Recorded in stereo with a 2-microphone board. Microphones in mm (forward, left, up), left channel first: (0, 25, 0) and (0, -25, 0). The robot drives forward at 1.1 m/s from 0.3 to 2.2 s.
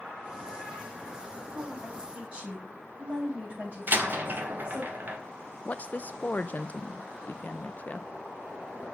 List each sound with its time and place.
1.5 s a woman speaking: 25° right (ahead or behind), 6.5 m
3.9 s a door slam: 40° right (ahead or behind), 1.5 m
5.7 s a woman speaking: 40° left (ahead or behind), 0.5 m